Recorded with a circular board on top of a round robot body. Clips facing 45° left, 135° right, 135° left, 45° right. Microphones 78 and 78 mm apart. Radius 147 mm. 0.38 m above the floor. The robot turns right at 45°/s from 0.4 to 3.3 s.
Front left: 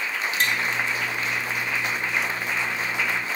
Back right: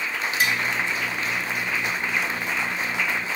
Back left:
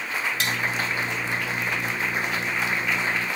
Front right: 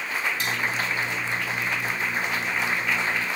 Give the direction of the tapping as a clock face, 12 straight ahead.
7 o'clock.